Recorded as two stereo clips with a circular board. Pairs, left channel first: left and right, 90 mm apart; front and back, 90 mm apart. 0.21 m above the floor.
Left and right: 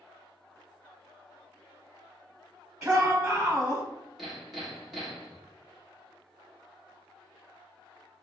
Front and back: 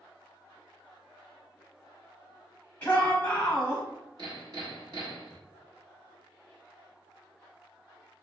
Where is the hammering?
Straight behind, 1.1 m.